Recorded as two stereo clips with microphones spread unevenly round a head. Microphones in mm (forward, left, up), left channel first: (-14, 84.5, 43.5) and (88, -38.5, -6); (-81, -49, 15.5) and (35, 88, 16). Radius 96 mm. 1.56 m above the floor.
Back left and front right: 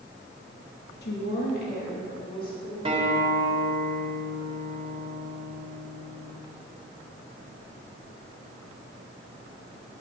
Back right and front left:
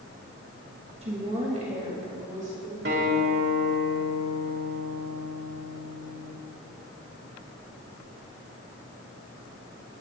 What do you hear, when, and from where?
1.0 s a woman speaking: 110° left, 2.5 m; by 2.8 s 95° left, 5 m
2.9 s a guitar: 10° left, 3 m